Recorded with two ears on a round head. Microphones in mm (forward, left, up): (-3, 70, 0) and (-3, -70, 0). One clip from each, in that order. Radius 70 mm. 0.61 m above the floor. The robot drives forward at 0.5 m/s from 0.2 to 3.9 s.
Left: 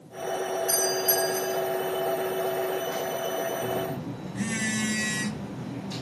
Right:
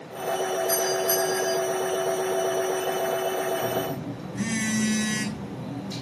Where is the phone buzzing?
5° right (ahead or behind), 4.5 m.